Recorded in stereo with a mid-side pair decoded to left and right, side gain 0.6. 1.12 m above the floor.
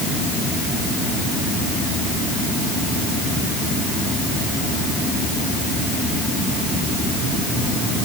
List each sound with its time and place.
Only background noise.